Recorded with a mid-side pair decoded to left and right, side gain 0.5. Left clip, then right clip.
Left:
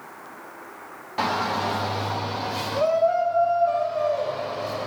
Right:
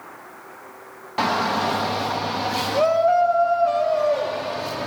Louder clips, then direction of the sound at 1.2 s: Right 3 dB; 25° right.